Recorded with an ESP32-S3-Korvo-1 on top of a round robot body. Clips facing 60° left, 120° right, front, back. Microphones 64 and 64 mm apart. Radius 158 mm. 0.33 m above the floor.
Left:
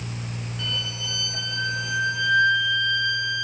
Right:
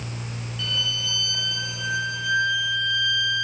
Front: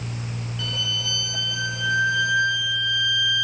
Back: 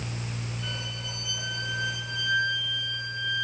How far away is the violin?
About 5.5 m.